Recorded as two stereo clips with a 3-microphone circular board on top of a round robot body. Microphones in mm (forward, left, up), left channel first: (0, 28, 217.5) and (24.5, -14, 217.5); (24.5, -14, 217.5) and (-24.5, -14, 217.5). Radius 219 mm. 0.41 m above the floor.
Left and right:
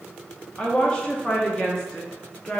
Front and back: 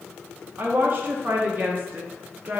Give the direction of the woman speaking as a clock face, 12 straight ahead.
6 o'clock.